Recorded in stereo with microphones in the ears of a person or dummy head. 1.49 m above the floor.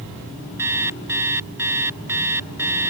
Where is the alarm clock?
10° right (ahead or behind).